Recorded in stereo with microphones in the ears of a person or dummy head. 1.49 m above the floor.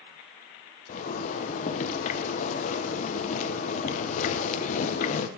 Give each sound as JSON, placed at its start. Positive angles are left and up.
{"t": 0.9, "sound": "a zipper", "side_deg": 45, "distance_m": 1.0}